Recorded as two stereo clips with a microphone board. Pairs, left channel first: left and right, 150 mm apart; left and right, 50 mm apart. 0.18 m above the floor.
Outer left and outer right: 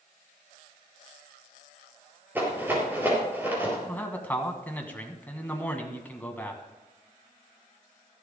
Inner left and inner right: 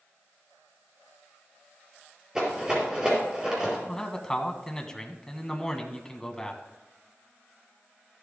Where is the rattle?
15° right (ahead or behind), 4.5 m.